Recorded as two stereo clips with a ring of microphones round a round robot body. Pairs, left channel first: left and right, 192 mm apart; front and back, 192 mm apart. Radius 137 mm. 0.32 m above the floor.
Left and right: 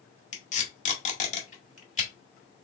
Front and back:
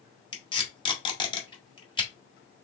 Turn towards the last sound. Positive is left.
turn(degrees=55)